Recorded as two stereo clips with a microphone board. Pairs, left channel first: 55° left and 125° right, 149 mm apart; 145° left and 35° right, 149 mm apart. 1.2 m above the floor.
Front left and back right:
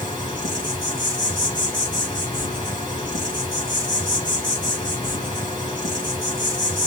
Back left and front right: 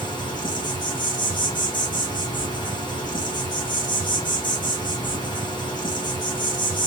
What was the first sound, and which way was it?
An insect, 100° left.